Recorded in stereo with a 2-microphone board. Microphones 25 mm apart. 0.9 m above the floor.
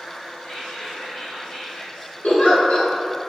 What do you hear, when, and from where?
0.4 s whispering: 70° left (ahead or behind), 1.3 m
2.2 s a giggle: 60° left (ahead or behind), 0.9 m